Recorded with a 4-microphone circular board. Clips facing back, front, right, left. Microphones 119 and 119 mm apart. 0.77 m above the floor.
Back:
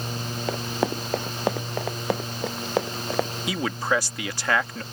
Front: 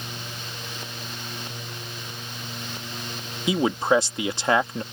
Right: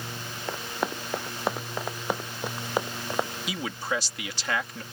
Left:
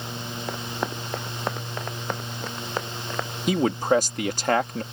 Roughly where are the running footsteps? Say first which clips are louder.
Back 12 dB, even; behind.